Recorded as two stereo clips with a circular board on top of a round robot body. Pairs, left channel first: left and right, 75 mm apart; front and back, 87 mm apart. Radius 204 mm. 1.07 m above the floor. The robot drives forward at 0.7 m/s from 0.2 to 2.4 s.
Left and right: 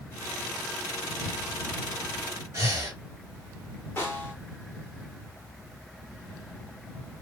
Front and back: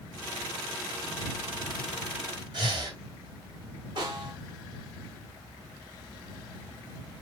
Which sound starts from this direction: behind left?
A snare drum, at 4.0 s.